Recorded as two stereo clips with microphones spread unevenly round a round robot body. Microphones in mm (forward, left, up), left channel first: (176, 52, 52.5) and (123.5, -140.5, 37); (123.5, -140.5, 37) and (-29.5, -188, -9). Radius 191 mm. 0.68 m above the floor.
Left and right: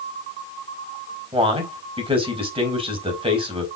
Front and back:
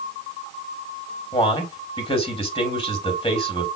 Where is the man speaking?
45° right, 4 m.